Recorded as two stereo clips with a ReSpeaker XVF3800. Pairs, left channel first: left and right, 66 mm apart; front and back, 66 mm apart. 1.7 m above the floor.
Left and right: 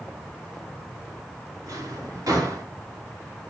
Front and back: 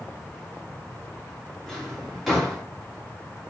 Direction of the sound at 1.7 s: 85° right.